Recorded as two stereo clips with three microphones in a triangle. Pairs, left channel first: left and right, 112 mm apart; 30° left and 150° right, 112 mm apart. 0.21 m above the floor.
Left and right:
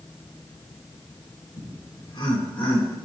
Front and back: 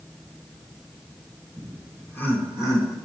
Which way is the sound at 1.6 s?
105° left.